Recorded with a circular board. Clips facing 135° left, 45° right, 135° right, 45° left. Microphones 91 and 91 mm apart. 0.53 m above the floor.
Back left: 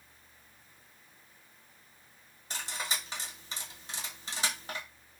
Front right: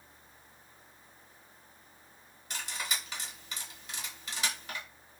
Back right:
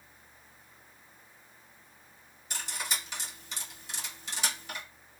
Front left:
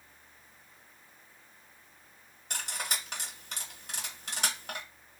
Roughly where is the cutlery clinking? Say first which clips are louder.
Back left 1 dB, even; left.